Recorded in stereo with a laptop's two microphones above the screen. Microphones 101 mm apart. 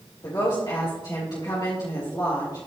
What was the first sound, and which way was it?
A woman speaking, 50° left (ahead or behind).